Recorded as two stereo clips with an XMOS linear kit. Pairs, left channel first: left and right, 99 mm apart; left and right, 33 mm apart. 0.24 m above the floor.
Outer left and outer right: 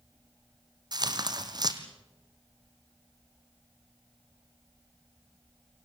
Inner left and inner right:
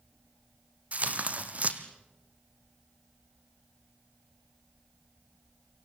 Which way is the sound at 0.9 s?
45° right (ahead or behind).